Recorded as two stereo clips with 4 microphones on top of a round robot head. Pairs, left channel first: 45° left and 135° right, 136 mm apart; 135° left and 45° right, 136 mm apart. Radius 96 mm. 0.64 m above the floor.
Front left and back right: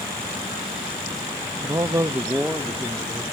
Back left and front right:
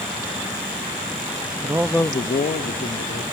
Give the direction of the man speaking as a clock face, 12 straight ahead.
3 o'clock.